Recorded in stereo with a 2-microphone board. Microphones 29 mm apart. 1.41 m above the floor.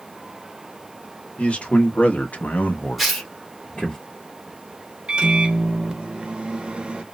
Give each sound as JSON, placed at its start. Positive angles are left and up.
{"t": 1.4, "sound": "a man speaking", "side_deg": 50, "distance_m": 1.3}
{"t": 3.0, "sound": "tearing paper", "side_deg": 5, "distance_m": 1.2}
{"t": 5.1, "sound": "a microwave", "side_deg": -35, "distance_m": 0.7}